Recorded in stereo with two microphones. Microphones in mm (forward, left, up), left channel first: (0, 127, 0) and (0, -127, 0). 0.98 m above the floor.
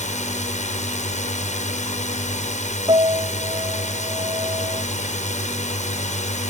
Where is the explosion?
I don't hear an explosion.